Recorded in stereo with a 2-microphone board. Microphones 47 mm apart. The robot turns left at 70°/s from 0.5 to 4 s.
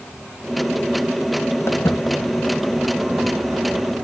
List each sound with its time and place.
1.7 s footsteps: 60° left (ahead or behind), 2 m; by 4.0 s 40° right (ahead or behind), 1.5 m